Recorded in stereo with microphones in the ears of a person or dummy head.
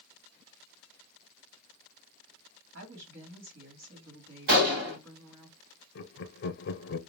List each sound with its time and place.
2.7 s a woman speaking: 80° right, 2 m
4.5 s a gunshot: 65° right (ahead or behind), 1.7 m
6.0 s laughter: 55° left (ahead or behind), 0.7 m